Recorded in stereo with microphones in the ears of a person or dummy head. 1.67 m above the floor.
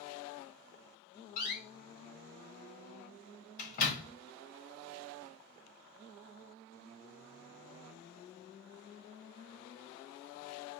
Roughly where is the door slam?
Left.